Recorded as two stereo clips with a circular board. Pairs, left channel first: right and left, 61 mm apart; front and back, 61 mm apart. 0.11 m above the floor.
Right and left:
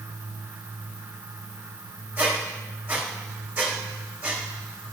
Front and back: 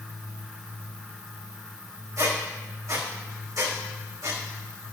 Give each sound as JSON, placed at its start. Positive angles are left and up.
{"t": 2.2, "sound": "a squeak", "azimuth_deg": 155, "distance_m": 4.0}